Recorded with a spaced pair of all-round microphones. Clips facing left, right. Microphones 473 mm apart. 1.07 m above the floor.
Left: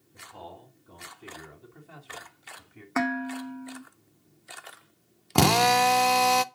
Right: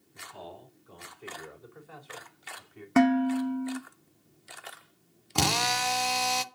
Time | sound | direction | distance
0.1 | a man speaking | 65° left (ahead or behind) | 4 m
3.0 | dishes clattering | 50° right (ahead or behind) | 0.9 m
5.3 | a drill | 70° left (ahead or behind) | 0.5 m